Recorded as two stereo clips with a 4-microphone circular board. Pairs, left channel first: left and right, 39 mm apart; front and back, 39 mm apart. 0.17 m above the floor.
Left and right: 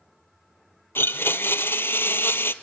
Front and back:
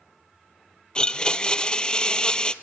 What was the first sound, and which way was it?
A blender, 70° left.